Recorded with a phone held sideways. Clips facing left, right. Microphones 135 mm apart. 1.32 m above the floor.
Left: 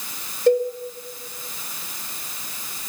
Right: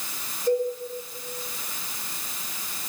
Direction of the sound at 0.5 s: 75° left (ahead or behind).